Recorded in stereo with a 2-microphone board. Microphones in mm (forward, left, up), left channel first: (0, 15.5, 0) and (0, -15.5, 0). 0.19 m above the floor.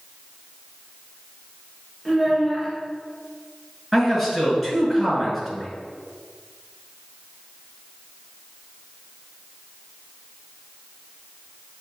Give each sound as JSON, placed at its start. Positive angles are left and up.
{"t": 2.0, "sound": "a child speaking", "side_deg": -5, "distance_m": 1.7}
{"t": 3.9, "sound": "a man speaking", "side_deg": -5, "distance_m": 1.9}